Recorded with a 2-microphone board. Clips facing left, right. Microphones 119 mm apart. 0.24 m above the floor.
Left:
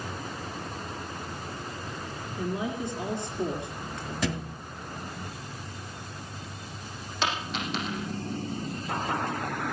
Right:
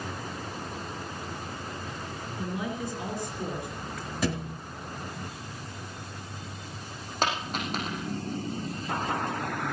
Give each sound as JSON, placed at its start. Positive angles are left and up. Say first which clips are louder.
{"t": 2.4, "sound": "a woman speaking", "louder": "left 2 dB", "side_deg": 25, "distance_m": 3.0}
{"t": 4.2, "sound": "a thud", "louder": "right 2 dB", "side_deg": -5, "distance_m": 1.8}
{"t": 7.2, "sound": "a dropped coin", "louder": "right 1 dB", "side_deg": -45, "distance_m": 6.0}